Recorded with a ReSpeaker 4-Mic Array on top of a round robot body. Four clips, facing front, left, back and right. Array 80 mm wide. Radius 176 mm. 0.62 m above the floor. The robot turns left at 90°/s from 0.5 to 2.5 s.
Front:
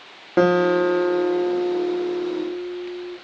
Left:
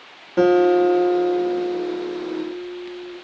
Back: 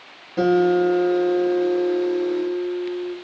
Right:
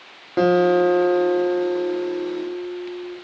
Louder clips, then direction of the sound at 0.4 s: Left 1 dB, even; 20° right.